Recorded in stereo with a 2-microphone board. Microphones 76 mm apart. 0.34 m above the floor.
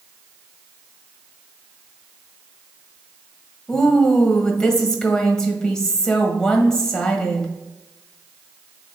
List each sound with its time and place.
3.7 s a woman speaking: 10° left (ahead or behind), 1.5 m